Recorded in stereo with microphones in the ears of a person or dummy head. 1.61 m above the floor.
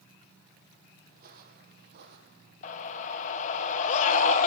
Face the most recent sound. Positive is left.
turn(degrees=45)  # may be behind; listen again after turning